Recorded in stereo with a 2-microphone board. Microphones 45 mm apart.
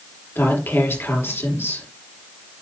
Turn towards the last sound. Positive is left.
turn(degrees=60)  # may be behind; listen again after turning